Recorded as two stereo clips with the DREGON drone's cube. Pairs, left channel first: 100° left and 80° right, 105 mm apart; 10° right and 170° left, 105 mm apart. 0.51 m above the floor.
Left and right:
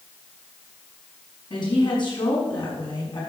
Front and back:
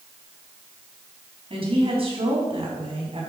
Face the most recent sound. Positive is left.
turn(degrees=140)